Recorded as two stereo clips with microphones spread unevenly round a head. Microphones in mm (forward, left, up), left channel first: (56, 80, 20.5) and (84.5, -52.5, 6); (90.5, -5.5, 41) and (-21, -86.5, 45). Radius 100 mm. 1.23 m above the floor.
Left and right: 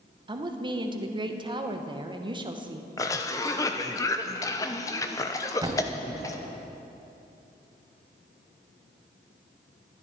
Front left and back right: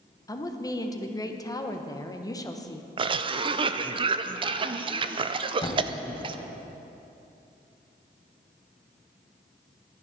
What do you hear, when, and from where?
0.3 s a woman speaking: 25° right, 1.3 m
3.0 s a cough: 170° left, 0.6 m
5.6 s a thud: 20° right, 1.7 m